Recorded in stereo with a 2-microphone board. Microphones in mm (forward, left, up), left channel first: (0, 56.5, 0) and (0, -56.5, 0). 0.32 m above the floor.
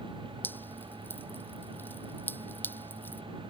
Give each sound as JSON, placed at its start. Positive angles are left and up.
{"t": 0.4, "sound": "dripping", "side_deg": 15}